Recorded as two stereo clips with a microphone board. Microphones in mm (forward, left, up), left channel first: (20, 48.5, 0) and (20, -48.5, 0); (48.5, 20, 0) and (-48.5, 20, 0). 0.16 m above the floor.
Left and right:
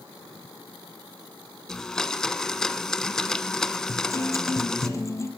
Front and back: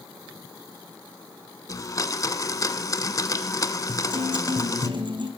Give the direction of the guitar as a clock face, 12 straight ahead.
7 o'clock.